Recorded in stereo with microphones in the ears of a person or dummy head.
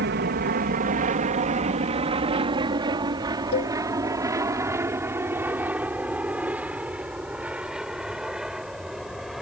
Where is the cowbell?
55° left (ahead or behind).